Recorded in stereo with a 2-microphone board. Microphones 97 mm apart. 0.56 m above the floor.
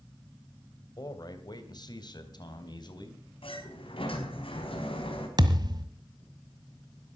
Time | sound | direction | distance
1.0 | a man speaking | 45° left (ahead or behind) | 2 m
3.4 | a sliding door | 75° left (ahead or behind) | 4.5 m
5.4 | a thud | 50° right (ahead or behind) | 1.4 m